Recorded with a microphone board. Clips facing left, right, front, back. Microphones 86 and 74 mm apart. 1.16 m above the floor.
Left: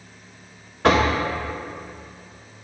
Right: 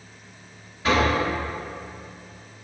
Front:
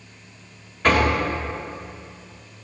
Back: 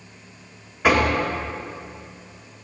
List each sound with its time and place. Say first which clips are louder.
0.8 s knocking: left 3 dB, even; 100° left, 1.4 m